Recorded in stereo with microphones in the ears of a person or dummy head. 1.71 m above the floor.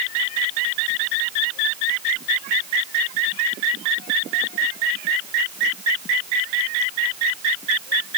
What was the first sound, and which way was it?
Only background noise.